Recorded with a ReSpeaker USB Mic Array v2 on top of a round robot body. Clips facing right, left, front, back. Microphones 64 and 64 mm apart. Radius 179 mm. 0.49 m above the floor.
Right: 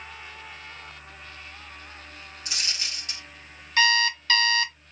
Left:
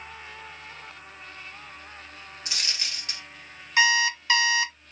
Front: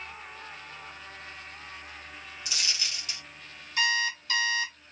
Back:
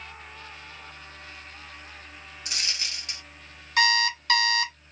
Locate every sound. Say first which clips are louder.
2.5 s a dropped coin: even, back 1 dB; 140° left, 1.1 m
3.8 s an alarm clock: even, back 5 dB; 165° left, 0.6 m